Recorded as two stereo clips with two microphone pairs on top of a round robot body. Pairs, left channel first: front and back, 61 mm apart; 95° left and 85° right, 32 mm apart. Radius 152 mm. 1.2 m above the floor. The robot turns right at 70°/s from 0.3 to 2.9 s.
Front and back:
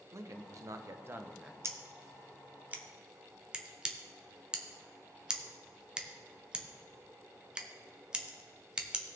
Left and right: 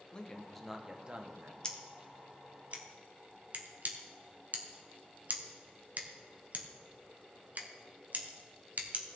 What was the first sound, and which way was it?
A man speaking, 160° left.